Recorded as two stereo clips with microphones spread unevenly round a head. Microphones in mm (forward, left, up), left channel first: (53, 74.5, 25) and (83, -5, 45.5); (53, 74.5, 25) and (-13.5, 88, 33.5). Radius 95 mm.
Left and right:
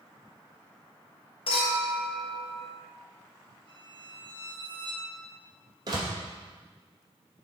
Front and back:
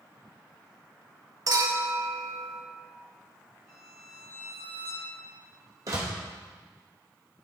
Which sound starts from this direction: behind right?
A door slam, at 5.9 s.